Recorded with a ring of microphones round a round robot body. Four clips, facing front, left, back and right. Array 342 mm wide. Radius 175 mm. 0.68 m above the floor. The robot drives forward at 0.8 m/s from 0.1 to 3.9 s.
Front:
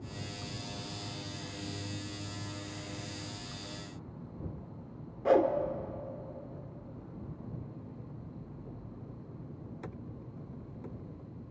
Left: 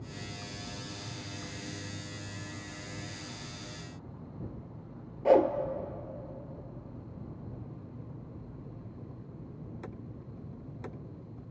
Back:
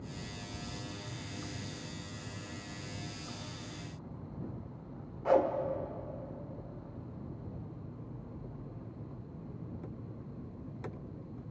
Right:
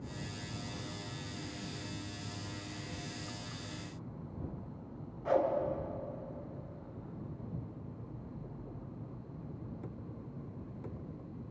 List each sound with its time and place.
5.2 s a whoosh: 55° left, 1.4 m